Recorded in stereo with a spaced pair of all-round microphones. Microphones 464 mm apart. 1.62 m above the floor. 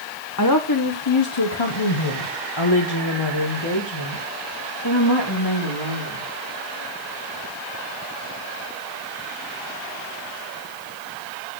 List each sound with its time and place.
0.4 s a woman speaking: 40° left (ahead or behind), 1.1 m; by 6.3 s 50° left (ahead or behind), 3.5 m